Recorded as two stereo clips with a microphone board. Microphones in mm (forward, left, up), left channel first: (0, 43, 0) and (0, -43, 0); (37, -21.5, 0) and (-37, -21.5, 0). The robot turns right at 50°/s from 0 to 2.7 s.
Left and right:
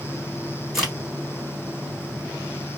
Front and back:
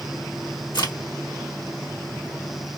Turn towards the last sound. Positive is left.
turn(degrees=90)